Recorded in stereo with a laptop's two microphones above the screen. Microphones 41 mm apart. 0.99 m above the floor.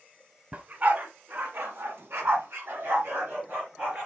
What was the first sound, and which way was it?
A dog barking, 35° right (ahead or behind).